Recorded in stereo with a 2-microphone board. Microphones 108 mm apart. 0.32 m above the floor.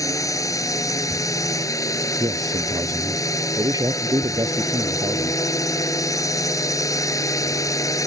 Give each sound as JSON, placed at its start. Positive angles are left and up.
{"t": 0.0, "sound": "a drone", "side_deg": 30}
{"t": 2.2, "sound": "a man speaking", "side_deg": -35}